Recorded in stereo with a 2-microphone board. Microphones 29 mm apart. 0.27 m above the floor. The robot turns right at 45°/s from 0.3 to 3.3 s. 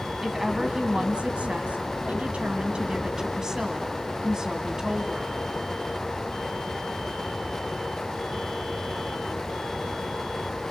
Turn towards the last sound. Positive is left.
turn(degrees=-25)